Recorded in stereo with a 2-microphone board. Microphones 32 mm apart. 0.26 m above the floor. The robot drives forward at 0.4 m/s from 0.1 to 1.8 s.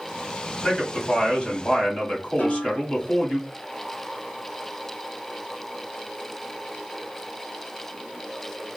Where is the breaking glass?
I don't hear breaking glass.